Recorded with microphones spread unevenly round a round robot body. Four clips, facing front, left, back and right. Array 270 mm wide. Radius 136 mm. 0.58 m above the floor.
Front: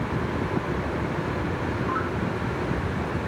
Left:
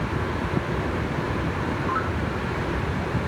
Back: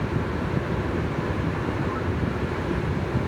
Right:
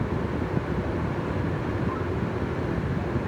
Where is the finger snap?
I don't hear a finger snap.